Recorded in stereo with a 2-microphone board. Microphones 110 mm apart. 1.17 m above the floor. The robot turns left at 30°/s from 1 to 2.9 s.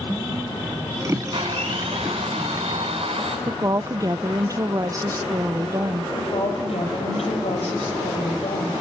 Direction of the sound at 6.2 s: 80° left.